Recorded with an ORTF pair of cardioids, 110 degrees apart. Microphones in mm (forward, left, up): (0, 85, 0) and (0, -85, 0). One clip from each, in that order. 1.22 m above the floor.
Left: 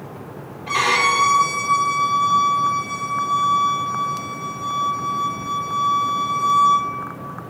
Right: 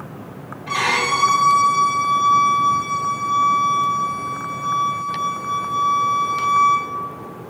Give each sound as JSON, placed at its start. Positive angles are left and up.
{"t": 0.7, "sound": "a violin", "azimuth_deg": 10, "distance_m": 1.1}